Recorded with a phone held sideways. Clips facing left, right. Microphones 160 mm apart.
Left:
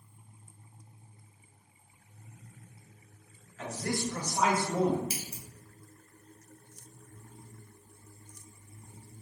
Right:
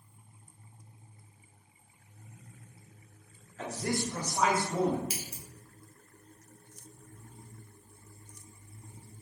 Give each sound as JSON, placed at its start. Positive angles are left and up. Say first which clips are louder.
{"t": 3.6, "sound": "a man speaking", "louder": "right 1 dB", "side_deg": -35, "distance_m": 1.0}
{"t": 5.1, "sound": "scissors", "louder": "left 1 dB", "side_deg": 25, "distance_m": 1.0}